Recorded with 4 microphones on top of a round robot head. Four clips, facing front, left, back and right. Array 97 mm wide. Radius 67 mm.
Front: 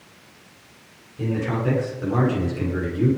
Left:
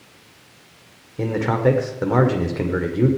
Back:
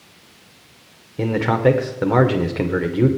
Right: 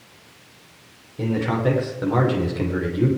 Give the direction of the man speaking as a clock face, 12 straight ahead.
7 o'clock.